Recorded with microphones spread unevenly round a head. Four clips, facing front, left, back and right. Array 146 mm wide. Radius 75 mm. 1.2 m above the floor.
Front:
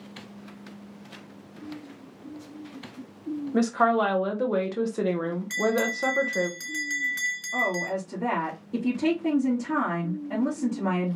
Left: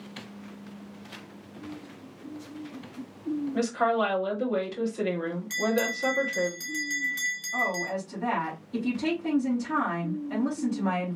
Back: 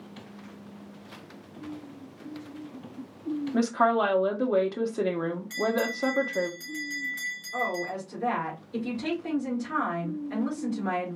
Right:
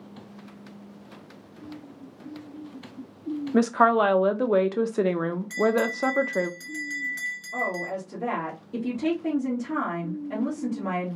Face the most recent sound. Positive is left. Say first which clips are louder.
# even, front 2 dB
turn(degrees=-25)